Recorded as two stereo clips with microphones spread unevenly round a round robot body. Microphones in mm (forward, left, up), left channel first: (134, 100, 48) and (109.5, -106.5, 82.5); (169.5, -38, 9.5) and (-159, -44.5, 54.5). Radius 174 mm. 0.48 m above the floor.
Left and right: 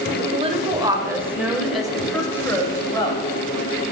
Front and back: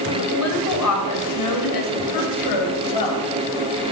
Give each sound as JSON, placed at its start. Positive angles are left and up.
{"t": 0.2, "sound": "a woman speaking", "azimuth_deg": -35, "distance_m": 2.0}